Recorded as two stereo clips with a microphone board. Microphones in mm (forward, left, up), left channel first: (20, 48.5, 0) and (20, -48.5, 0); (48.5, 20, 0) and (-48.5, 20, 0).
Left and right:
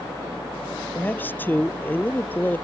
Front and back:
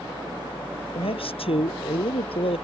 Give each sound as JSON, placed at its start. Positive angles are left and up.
{"t": 0.9, "sound": "a man speaking", "azimuth_deg": 20}